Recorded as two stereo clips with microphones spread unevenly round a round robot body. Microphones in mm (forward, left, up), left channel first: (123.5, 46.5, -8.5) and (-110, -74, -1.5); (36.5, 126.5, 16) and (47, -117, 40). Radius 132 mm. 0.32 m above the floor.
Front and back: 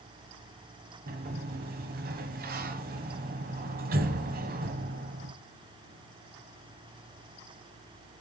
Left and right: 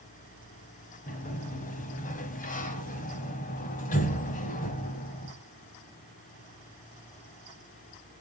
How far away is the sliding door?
About 0.9 m.